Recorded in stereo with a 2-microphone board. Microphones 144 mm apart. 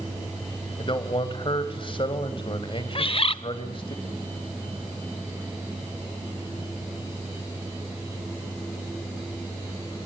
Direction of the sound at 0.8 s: 40° left (ahead or behind).